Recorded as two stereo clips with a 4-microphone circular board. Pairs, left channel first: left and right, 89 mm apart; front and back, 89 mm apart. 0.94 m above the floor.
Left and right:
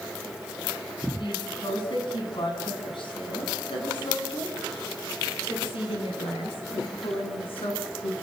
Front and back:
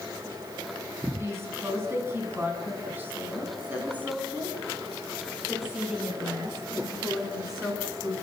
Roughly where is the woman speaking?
Behind left.